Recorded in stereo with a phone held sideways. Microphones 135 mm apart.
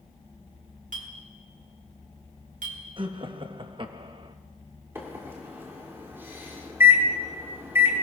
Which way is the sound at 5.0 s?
20° right (ahead or behind).